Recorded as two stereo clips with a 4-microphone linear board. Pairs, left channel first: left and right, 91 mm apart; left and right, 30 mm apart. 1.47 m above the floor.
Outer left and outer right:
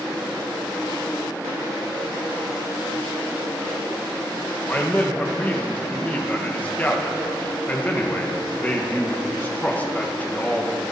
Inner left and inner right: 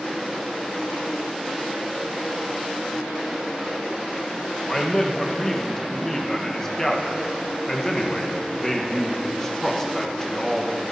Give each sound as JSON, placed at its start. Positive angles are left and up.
{"t": 4.7, "sound": "a man speaking", "side_deg": 20, "distance_m": 1.5}